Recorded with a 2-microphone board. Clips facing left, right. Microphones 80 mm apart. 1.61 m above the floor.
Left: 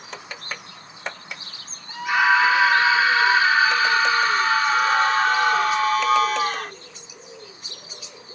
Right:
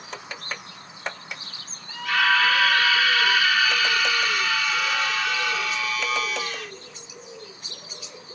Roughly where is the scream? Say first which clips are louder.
Left 3 dB; centre.